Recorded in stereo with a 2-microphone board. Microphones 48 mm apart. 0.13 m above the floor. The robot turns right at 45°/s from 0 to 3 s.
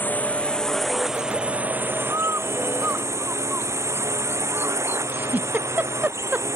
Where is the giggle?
35° right (ahead or behind).